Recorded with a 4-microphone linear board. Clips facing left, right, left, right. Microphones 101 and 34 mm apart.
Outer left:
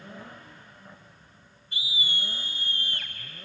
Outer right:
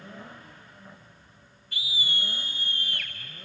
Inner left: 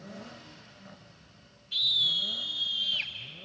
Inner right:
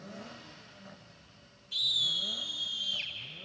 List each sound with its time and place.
1.7 s a scream: 25° left (ahead or behind), 3.5 m; by 3.1 s 35° left (ahead or behind), 4.5 m